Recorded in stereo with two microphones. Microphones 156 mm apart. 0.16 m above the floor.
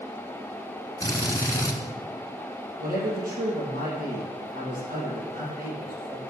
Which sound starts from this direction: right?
A man speaking, at 2.8 s.